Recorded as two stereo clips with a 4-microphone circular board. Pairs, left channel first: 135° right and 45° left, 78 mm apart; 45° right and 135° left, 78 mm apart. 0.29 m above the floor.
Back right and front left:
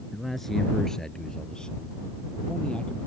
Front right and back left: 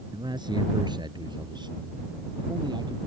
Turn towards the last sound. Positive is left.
turn(degrees=150)